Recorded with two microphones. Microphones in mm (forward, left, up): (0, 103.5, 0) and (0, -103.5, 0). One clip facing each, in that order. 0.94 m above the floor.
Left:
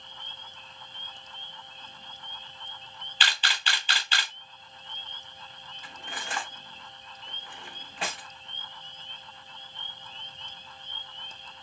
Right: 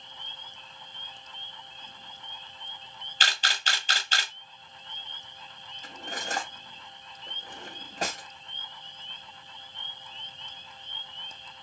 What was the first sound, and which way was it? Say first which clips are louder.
A camera shutter: even; 45° right (ahead or behind).